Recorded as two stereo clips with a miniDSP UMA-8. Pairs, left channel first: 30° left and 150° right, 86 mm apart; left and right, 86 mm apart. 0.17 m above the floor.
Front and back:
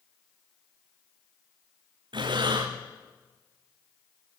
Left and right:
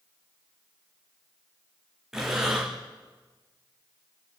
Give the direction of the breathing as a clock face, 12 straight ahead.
6 o'clock.